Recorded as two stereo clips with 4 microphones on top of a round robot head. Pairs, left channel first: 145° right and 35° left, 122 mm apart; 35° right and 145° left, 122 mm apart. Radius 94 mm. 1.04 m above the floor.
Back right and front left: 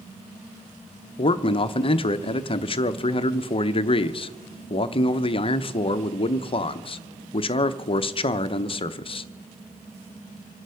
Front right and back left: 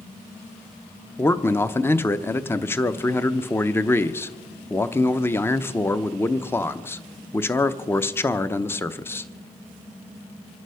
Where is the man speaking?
105° right, 0.8 m.